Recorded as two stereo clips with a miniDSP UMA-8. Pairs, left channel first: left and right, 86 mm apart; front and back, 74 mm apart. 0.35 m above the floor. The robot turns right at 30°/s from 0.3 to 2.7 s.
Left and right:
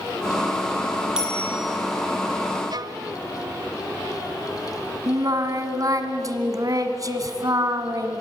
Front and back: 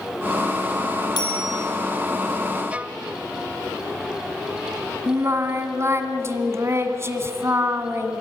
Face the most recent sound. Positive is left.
turn(degrees=-130)